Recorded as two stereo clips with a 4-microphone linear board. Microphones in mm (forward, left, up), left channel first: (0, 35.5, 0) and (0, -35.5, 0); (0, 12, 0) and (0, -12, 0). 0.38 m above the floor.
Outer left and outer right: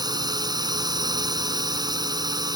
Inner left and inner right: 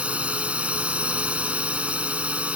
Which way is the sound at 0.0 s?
75° right (ahead or behind).